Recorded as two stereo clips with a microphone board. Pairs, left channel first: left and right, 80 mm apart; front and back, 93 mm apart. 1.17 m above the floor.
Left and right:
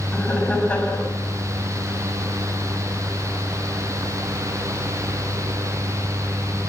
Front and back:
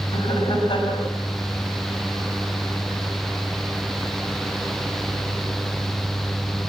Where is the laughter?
20° left, 7.5 m.